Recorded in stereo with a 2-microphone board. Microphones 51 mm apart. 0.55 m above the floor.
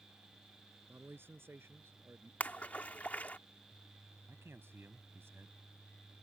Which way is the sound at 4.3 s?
55° right (ahead or behind).